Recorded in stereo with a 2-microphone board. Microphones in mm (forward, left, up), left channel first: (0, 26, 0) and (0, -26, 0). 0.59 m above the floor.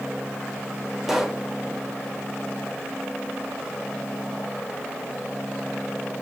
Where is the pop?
5° right (ahead or behind), 1.6 m.